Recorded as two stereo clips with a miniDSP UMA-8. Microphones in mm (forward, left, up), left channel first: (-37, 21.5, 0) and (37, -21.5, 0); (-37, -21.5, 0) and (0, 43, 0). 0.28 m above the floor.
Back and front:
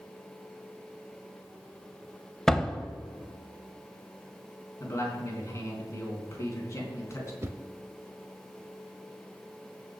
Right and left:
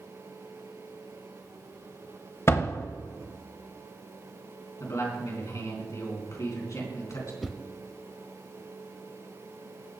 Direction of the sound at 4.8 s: 160° right.